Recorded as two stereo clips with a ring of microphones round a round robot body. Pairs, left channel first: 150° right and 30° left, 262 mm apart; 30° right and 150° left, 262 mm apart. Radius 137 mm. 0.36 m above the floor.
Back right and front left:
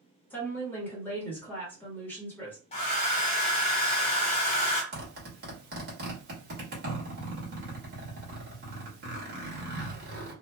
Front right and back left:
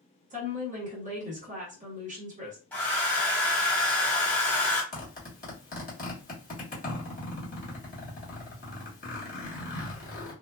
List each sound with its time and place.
0.3 s a woman speaking: 135° left, 1.1 m
2.7 s a hair dryer: 110° right, 1.2 m
4.9 s a zipper: 10° left, 1.5 m